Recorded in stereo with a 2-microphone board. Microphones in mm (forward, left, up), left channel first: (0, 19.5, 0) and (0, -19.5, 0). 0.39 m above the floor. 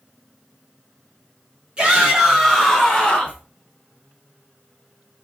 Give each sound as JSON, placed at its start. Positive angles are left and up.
{"t": 1.8, "sound": "a shout", "side_deg": -25, "distance_m": 1.0}